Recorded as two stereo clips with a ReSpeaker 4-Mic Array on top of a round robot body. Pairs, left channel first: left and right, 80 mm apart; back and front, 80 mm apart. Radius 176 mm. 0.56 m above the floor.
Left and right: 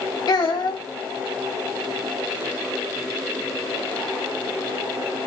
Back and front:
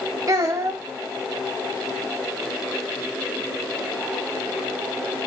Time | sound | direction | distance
0.3 | a child speaking | 50° left | 1.9 m